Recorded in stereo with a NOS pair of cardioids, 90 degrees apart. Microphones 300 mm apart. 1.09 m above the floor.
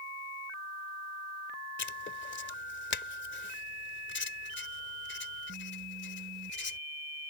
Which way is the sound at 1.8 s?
40° left.